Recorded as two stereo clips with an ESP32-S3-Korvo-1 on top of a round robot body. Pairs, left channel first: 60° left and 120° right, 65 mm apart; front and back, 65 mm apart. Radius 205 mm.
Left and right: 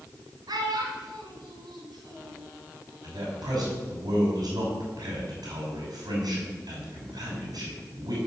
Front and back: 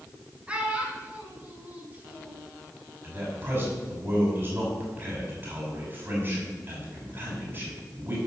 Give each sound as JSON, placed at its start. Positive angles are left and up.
{"t": 0.5, "sound": "a child speaking", "azimuth_deg": -110, "distance_m": 3.0}
{"t": 3.0, "sound": "a man speaking", "azimuth_deg": -130, "distance_m": 5.5}